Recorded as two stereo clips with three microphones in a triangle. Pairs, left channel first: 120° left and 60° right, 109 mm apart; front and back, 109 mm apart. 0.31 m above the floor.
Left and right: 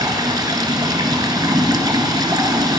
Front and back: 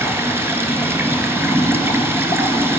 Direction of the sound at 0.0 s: 110° right.